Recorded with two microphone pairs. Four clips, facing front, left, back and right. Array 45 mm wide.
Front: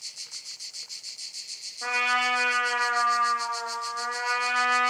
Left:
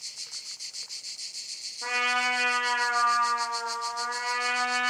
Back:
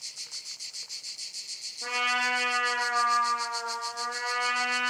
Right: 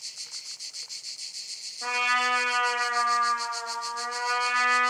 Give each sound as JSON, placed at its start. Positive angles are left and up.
{"t": 1.8, "sound": "a trumpet", "azimuth_deg": -20, "distance_m": 1.7}